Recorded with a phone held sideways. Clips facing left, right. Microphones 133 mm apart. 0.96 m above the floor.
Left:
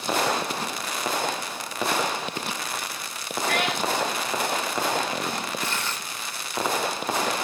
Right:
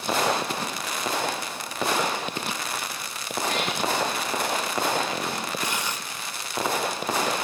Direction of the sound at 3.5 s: 80° left.